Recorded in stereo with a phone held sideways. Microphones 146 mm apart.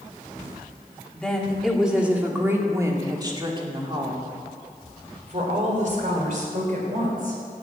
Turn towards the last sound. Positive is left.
turn(degrees=-65)  # may be behind; listen again after turning